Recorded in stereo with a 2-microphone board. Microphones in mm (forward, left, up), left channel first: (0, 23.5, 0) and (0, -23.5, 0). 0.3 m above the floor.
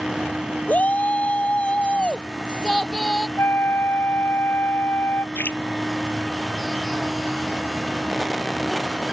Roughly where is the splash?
Left.